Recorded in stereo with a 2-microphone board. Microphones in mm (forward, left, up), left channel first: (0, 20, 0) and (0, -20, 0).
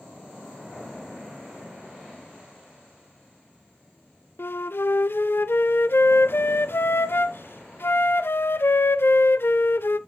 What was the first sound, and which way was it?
A flute, 65° left (ahead or behind).